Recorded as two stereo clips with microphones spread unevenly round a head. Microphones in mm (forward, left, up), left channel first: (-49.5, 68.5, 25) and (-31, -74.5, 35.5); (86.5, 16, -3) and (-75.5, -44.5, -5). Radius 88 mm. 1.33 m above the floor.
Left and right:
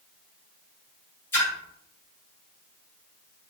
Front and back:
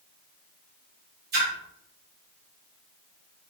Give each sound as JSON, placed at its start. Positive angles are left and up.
{"t": 1.3, "sound": "a splash", "azimuth_deg": 170, "distance_m": 1.9}